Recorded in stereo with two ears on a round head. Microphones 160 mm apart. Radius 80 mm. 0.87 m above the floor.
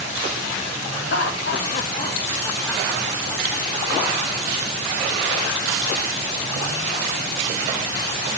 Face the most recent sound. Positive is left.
turn(degrees=-30)  # may be behind; listen again after turning